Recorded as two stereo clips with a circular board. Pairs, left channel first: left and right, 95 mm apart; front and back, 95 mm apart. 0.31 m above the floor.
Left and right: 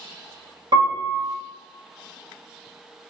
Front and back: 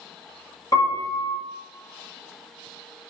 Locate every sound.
0.7 s a piano: 50° right, 2.0 m